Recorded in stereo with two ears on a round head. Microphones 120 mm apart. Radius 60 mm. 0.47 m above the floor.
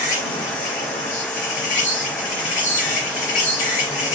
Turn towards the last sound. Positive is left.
turn(degrees=60)  # may be behind; listen again after turning